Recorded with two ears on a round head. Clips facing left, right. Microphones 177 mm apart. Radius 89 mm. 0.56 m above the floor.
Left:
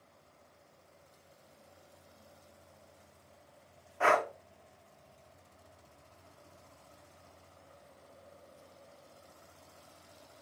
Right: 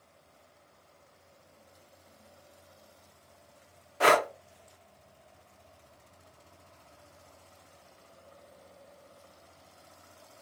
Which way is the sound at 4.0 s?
45° right (ahead or behind).